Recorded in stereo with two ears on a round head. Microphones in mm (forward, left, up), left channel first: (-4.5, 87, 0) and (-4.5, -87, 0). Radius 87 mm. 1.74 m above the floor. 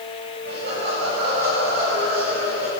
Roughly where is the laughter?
Right.